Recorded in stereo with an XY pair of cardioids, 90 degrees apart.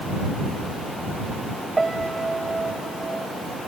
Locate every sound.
1.8 s a piano: 25° right